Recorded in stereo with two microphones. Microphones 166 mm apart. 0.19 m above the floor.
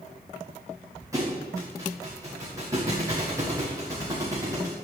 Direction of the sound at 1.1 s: 20° right (ahead or behind).